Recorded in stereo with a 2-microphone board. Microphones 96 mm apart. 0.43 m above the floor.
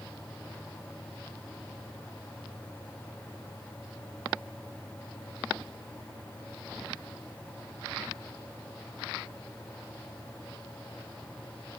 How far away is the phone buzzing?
I don't hear a phone buzzing.